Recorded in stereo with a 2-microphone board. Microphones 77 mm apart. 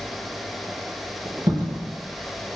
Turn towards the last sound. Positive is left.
turn(degrees=-65)  # may be behind; listen again after turning